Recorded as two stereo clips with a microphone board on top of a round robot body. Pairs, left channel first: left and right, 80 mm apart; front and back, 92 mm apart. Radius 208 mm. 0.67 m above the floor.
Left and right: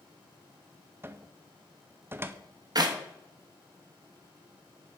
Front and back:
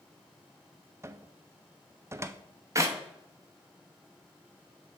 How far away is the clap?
About 0.9 m.